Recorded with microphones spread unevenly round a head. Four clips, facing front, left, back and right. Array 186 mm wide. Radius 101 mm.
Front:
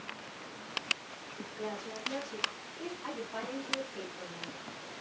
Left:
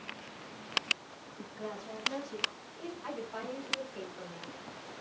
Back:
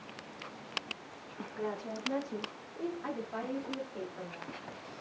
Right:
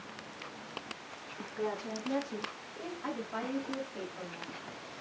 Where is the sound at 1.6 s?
115° right, 1.5 m; by 2.9 s 160° right, 1.9 m.